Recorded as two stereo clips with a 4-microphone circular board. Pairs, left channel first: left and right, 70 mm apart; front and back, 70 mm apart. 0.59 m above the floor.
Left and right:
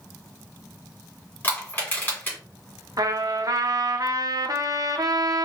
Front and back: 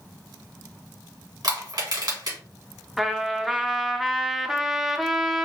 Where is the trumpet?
95° right, 0.5 m.